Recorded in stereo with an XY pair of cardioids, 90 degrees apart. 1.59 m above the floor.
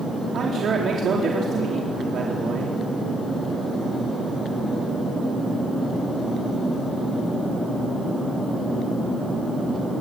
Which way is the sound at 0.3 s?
60° right.